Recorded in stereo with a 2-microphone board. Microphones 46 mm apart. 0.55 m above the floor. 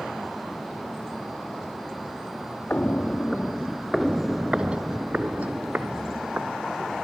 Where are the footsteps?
35° left (ahead or behind), 0.8 m; by 6.5 s 40° right (ahead or behind), 2 m.